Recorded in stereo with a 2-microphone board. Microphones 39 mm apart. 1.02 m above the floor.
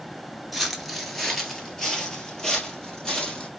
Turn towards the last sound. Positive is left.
turn(degrees=15)  # may be behind; listen again after turning